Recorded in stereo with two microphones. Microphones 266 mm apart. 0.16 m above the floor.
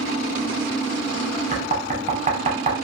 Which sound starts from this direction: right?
Knocking, at 1.5 s.